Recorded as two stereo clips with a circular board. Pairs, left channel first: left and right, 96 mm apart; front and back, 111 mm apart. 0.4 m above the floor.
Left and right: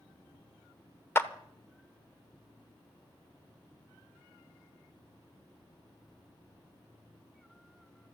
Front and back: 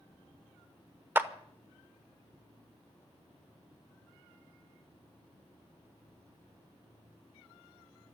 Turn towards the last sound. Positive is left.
turn(degrees=125)